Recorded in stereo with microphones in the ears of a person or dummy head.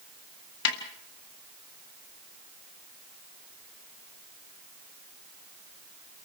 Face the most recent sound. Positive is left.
turn(degrees=70)  # may be behind; listen again after turning